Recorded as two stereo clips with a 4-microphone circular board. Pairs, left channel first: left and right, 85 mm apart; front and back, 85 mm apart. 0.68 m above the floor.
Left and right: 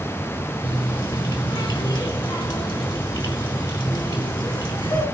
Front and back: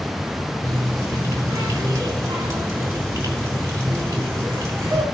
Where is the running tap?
125° left, 5 m.